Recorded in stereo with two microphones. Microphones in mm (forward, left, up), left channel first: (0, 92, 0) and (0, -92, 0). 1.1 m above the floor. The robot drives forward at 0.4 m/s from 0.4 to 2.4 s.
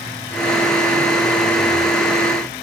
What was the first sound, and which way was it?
Only background noise.